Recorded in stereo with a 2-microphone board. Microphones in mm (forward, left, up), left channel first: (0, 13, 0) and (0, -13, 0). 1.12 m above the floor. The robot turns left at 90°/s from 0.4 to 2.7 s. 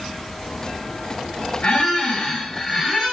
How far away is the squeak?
About 0.8 m.